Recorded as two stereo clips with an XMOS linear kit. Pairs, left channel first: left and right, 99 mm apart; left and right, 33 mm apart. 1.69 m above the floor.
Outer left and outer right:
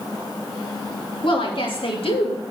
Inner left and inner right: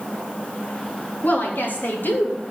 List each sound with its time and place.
1.2 s a woman speaking: 60° left (ahead or behind), 4 m; by 2.5 s 80° left, 2.5 m